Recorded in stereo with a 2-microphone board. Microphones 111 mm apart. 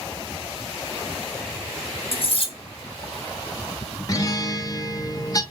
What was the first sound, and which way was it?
Cutlery clinking, 60° left (ahead or behind).